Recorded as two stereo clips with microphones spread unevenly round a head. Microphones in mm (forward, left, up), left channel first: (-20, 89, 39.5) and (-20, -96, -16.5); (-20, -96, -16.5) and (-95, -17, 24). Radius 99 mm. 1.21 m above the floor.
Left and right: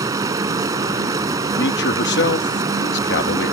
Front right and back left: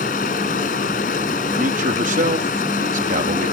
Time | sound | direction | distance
0.0 | running water | 15° right | ?
1.6 | a man speaking | 120° left | ?